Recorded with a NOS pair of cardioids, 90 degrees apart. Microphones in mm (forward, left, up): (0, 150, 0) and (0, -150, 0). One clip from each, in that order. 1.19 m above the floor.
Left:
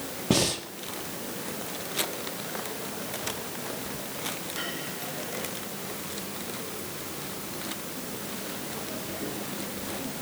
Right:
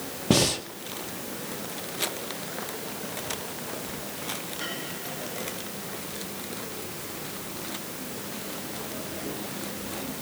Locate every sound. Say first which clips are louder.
0.3 s breathing: right 2 dB; 15° right, 1.9 m